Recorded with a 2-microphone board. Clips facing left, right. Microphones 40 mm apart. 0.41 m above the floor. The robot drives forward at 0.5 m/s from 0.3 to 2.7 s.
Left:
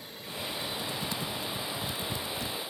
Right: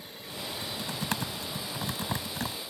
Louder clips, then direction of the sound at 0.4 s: Left 1 dB; 70° right (ahead or behind).